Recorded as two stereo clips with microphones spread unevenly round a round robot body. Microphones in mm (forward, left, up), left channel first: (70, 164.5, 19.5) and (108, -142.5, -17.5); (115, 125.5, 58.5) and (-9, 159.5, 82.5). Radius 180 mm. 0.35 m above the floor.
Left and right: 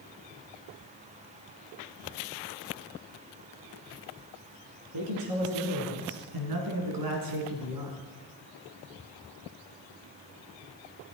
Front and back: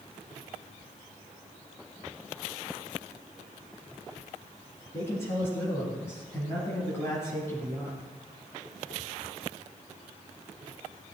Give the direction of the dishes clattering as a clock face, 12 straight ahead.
No dishes clattering in this recording.